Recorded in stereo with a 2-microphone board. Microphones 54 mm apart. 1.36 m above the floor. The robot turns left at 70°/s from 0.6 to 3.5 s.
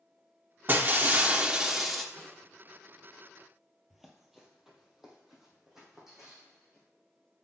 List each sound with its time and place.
0.7 s breaking glass: 95° right, 1.0 m; by 2.0 s 170° left, 1.0 m
2.1 s a snare drum: 20° left (ahead or behind), 5 m; by 2.5 s centre (ahead or behind), 5 m
3.9 s running footsteps: centre (ahead or behind), 1.7 m; by 6.8 s 5° right (ahead or behind), 5.5 m